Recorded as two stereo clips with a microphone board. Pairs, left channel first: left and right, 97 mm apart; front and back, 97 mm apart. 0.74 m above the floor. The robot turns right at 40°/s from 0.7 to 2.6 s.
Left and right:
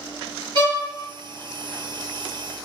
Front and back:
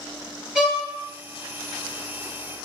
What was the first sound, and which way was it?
A violin, 100° right.